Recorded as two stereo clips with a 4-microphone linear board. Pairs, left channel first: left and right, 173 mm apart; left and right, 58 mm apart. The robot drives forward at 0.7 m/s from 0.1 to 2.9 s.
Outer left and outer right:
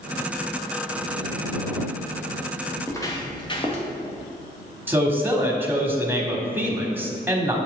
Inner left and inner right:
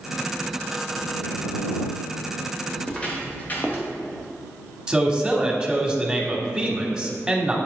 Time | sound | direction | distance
2.8 | footsteps | 15° left (ahead or behind) | 2 m
4.9 | a man speaking | 15° right (ahead or behind) | 1.1 m